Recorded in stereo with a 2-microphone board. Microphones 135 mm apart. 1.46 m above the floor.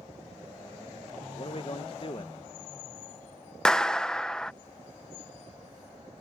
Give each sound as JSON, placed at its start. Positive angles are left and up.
{"t": 1.4, "sound": "a man speaking", "side_deg": 40}
{"t": 3.6, "sound": "a clap", "side_deg": 5}